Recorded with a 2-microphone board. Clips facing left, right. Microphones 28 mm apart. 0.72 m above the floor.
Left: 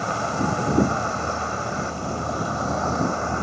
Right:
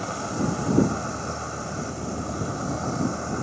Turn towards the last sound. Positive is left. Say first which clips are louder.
# left 4 dB
turn(degrees=30)  # may be behind; listen again after turning